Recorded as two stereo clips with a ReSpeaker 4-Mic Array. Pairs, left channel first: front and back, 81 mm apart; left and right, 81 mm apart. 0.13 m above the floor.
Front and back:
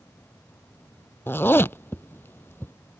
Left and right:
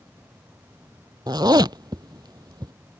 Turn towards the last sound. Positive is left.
turn(degrees=-60)